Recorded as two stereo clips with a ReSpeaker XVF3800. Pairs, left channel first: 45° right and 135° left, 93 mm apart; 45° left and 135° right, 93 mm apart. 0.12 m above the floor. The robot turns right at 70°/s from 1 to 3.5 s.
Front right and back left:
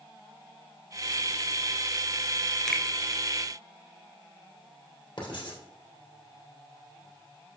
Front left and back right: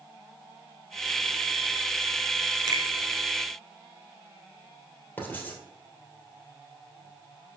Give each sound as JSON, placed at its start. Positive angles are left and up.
{"t": 2.7, "sound": "a finger snap", "azimuth_deg": -130, "distance_m": 1.2}
{"t": 5.2, "sound": "writing", "azimuth_deg": -20, "distance_m": 2.5}